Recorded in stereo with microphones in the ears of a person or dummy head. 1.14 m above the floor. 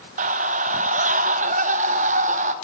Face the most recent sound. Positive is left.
turn(degrees=-35)  # may be behind; listen again after turning